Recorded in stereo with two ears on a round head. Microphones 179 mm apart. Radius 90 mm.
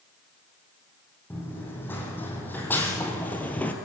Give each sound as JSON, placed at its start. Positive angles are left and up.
{"t": 1.3, "sound": "running footsteps", "side_deg": 10, "distance_m": 6.0}